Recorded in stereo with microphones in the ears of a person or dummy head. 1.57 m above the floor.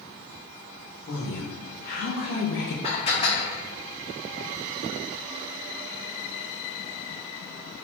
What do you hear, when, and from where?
1.1 s a woman speaking: 40° left (ahead or behind), 2.5 m; by 2.7 s 70° left (ahead or behind), 1.0 m
2.8 s dishes clattering: 35° left (ahead or behind), 2.5 m